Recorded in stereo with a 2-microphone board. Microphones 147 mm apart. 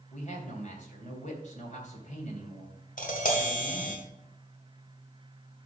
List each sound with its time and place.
0.1 s a man speaking: 55° left (ahead or behind), 3 m
3.0 s tapping: 65° left (ahead or behind), 2 m